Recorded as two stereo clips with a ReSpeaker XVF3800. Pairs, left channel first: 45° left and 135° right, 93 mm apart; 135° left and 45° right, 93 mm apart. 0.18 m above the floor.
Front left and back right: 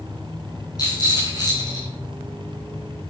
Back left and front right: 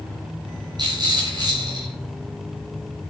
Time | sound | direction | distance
0.8 | a rattle | 5° right | 4.5 m